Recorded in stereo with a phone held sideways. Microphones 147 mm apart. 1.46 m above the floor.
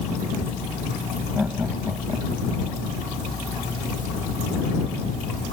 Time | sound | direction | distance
1.4 | laughter | 5° right (ahead or behind) | ?